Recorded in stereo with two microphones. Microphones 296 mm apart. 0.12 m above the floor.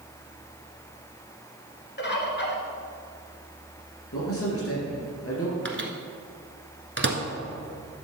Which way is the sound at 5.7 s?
40° right (ahead or behind).